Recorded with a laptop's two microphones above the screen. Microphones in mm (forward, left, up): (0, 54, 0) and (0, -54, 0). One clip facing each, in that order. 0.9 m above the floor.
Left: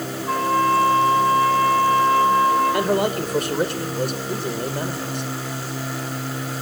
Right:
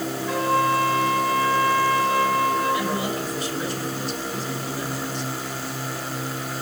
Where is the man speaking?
60° left (ahead or behind), 3 m.